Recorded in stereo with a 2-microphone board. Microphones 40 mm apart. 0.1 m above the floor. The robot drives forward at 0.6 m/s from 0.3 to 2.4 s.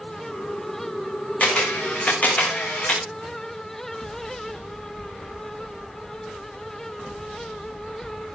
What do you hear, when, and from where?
1.4 s a camera shutter: 35° left (ahead or behind), 7.5 m; by 3.0 s 40° left (ahead or behind), 7 m